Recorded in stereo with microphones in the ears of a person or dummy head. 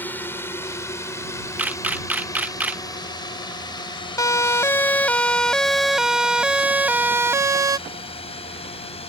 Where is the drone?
15° left (ahead or behind); by 9.1 s 40° left (ahead or behind).